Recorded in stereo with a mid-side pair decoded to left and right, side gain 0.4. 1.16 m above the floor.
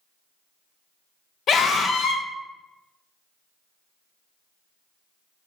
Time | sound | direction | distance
1.5 | a scream | 60° left | 0.6 m